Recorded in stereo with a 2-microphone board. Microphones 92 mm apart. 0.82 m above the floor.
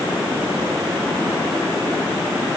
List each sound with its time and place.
Only background noise.